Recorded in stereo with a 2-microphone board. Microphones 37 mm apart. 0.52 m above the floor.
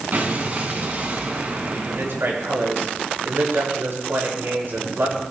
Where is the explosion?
55° right (ahead or behind), 3 m.